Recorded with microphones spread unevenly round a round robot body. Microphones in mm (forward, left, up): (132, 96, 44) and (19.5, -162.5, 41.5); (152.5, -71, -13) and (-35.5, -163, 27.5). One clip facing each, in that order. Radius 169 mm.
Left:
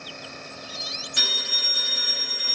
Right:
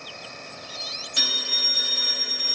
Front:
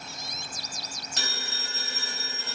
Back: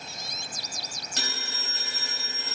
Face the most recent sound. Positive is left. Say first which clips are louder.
# right 2 dB, back 1 dB
turn(degrees=-165)